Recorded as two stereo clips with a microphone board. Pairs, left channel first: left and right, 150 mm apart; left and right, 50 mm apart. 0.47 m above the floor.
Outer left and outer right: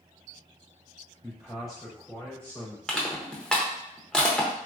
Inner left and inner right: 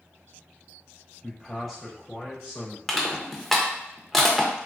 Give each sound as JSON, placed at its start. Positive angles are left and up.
{"t": 1.2, "sound": "a man speaking", "side_deg": -5, "distance_m": 1.6}
{"t": 2.9, "sound": "crushing", "side_deg": 5, "distance_m": 0.6}